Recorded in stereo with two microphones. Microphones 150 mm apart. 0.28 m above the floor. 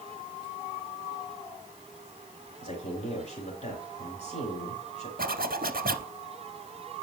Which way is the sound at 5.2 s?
75° right (ahead or behind).